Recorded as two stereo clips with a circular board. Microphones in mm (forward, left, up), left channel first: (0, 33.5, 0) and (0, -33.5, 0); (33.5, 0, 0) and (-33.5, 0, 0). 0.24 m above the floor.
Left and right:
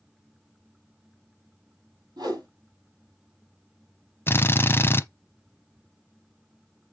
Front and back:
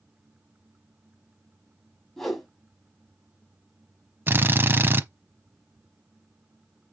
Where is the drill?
130° left, 0.7 m.